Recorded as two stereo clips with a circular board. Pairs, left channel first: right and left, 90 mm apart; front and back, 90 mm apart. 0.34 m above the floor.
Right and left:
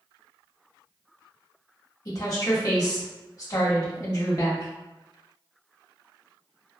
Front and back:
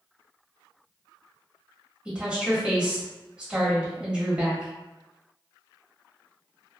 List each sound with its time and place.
2.0 s a woman speaking: 105° right, 1.5 m